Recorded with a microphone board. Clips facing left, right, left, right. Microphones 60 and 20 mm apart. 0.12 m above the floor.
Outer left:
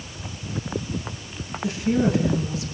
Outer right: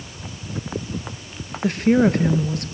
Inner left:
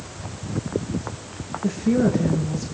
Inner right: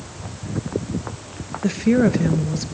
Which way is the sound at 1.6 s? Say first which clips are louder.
Outer right 5 dB, inner right 3 dB; 55° right (ahead or behind).